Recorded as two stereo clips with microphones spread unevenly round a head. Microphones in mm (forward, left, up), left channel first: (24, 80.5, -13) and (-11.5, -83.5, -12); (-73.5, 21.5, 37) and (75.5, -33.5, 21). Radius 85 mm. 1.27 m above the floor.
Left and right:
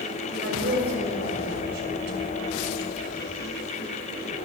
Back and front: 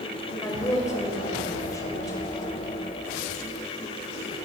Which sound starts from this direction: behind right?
A woman speaking, at 0.4 s.